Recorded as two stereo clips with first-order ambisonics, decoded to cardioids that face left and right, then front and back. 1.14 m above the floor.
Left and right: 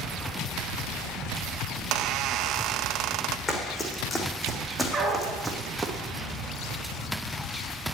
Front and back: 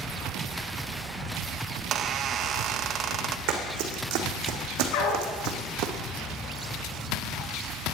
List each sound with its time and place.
1.8 s a squeak: 130° right, 0.5 m
3.5 s running footsteps: 160° left, 3 m; by 5.9 s 170° right, 2.5 m
4.9 s a dog barking: 5° right, 3.5 m